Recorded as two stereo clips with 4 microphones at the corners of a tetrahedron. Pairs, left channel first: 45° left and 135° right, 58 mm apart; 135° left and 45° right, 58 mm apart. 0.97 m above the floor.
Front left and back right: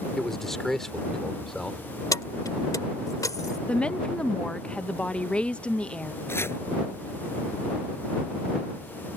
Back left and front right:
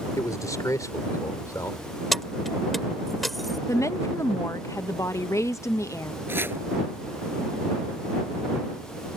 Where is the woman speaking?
115° left.